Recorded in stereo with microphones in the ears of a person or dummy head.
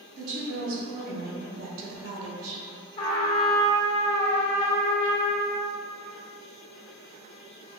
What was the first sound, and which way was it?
A woman speaking, 45° right (ahead or behind).